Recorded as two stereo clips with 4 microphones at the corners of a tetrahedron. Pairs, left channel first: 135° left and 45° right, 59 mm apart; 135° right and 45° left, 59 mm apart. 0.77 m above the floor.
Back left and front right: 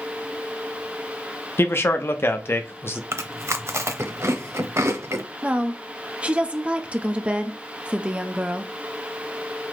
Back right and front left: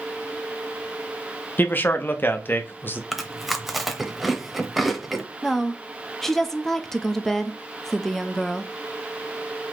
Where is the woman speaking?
60° right, 0.5 m.